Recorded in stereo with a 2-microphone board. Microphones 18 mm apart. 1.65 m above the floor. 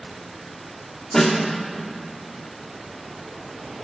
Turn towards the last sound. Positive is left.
turn(degrees=15)  # may be behind; listen again after turning